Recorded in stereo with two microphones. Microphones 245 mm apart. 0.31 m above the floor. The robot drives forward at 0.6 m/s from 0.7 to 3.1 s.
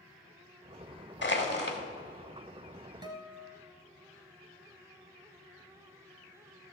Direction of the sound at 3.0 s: 15° right (ahead or behind).